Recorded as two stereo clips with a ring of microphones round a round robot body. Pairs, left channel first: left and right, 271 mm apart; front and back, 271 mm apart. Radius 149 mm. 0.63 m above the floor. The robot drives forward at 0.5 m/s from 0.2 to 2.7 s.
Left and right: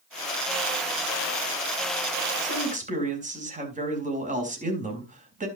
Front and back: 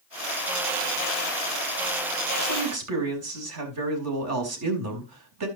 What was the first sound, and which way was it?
A man speaking, 150° right.